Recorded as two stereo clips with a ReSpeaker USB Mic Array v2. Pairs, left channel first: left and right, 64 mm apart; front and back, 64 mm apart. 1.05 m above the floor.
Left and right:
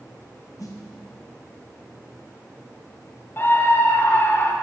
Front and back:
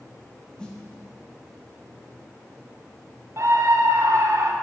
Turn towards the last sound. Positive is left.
turn(degrees=145)